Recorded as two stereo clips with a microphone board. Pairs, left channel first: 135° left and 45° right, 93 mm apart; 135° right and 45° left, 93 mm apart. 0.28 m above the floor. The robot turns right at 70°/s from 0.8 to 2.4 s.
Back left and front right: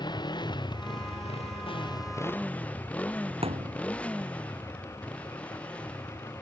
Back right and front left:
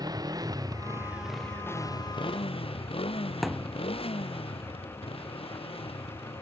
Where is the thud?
45° right.